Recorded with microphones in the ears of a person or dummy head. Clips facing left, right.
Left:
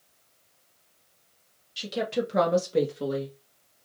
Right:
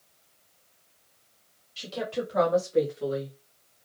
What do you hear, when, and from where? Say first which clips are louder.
1.8 s a woman speaking: left 3 dB; 20° left (ahead or behind), 2 m; by 3.4 s 75° left (ahead or behind), 1.6 m